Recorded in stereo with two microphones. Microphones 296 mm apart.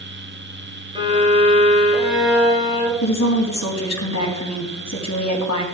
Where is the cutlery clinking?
I don't hear cutlery clinking.